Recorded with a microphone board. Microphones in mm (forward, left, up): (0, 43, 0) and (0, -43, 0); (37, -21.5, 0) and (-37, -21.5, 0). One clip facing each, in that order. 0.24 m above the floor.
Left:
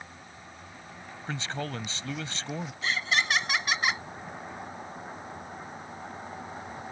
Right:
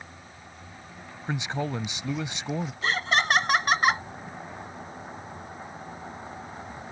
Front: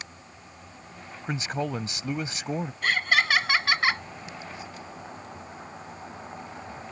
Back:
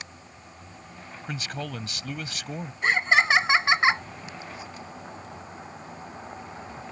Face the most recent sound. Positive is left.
turn(degrees=-115)